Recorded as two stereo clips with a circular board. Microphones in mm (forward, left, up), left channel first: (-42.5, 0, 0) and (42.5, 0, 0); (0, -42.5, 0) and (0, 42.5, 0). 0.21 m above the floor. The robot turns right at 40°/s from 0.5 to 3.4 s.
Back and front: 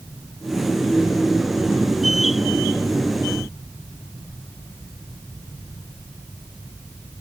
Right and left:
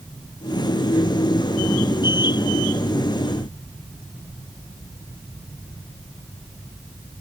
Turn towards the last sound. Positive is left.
No sound to turn to.